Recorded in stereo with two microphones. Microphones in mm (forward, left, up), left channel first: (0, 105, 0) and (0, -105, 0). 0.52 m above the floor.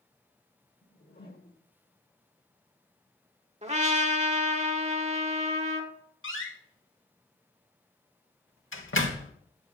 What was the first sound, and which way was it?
A whoosh, 45° left (ahead or behind).